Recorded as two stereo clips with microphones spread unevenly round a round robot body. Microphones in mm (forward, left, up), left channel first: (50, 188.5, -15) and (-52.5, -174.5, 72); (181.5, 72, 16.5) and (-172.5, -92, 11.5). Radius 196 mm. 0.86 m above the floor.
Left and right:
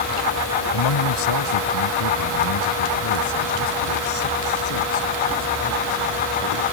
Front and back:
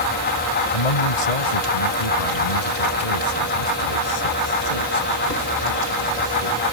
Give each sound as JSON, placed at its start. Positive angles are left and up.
{"t": 0.7, "sound": "a man speaking", "azimuth_deg": 40}